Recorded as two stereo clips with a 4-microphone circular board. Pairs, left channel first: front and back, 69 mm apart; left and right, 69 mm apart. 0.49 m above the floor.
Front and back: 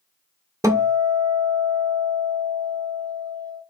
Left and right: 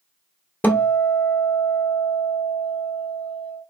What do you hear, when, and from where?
0.6 s a guitar: 150° left, 0.7 m